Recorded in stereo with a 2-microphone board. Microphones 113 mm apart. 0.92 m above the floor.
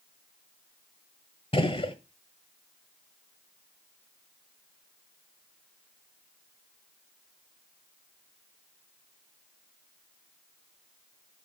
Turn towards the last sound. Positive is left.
turn(degrees=55)  # may be behind; listen again after turning